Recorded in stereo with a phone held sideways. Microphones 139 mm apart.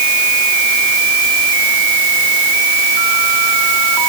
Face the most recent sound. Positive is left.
No sound to turn to.